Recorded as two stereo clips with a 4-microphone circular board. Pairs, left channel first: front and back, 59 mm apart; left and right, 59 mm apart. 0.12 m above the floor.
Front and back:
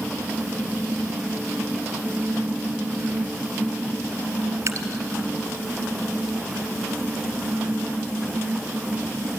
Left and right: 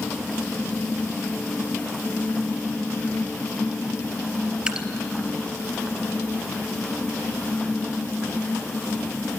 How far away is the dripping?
About 1.4 m.